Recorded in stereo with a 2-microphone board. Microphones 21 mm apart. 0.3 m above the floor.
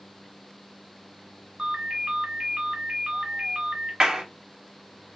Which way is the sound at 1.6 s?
50° right (ahead or behind).